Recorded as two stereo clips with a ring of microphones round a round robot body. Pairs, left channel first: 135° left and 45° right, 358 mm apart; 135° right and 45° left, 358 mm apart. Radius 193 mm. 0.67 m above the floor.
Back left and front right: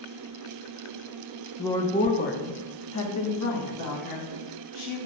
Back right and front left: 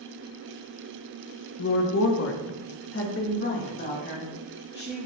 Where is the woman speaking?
145° right, 0.8 m; by 5.1 s 165° left, 2.5 m.